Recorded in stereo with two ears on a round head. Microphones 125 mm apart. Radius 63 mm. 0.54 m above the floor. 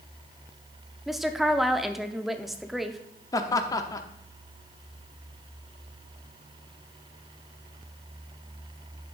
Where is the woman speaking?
Centre (ahead or behind), 0.6 m.